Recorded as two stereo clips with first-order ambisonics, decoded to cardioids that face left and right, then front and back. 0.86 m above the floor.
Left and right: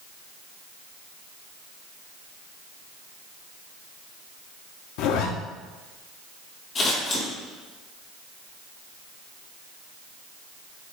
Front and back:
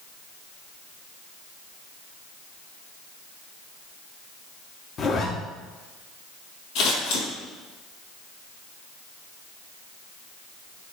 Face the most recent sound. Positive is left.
turn(degrees=30)